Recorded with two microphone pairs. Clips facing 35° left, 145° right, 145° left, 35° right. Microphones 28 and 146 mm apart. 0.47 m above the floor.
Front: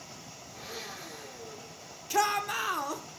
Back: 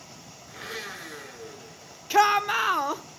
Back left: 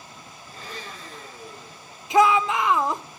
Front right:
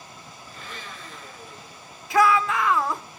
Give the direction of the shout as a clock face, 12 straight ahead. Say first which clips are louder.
Back 7 dB, back left 1 dB; 6 o'clock.